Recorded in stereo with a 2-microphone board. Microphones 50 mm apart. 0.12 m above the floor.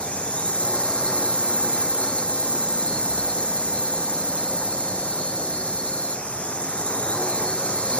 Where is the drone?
20° left (ahead or behind).